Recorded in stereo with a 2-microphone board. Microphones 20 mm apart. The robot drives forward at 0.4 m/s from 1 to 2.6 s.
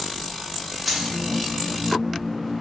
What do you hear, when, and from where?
0.8 s keys jangling: centre (ahead or behind), 0.6 m